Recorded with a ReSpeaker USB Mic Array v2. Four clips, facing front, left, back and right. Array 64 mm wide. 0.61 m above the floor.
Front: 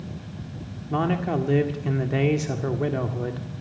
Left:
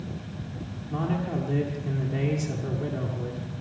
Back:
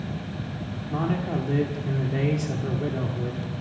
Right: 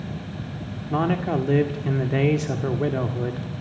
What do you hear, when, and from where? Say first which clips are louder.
0.9 s a man speaking: right 6 dB, front 3 dB; 60° right, 1.8 m